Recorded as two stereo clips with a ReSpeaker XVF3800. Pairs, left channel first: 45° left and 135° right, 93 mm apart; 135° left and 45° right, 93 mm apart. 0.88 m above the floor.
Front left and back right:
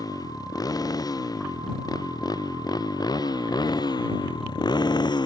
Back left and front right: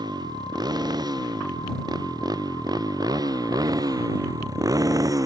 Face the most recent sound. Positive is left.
turn(degrees=5)